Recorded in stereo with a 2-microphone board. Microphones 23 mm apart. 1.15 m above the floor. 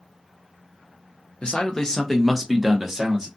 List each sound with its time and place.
1.4 s a man speaking: 40° left (ahead or behind), 0.7 m; by 3.3 s 20° right (ahead or behind), 1.1 m